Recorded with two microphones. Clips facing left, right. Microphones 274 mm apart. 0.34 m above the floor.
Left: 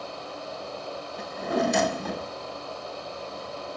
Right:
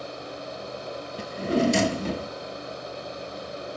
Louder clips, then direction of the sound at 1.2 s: Right 4 dB; 30° right (ahead or behind).